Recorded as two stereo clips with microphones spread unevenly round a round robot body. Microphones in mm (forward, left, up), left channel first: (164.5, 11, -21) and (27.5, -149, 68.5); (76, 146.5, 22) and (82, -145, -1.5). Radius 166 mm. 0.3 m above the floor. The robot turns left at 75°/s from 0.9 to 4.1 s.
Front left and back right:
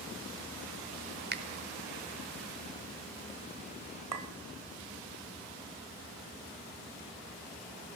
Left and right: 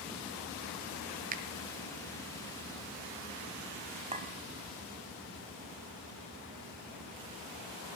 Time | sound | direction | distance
1.3 | a finger snap | 80° right | 0.8 m
4.1 | a clink | 155° right | 0.8 m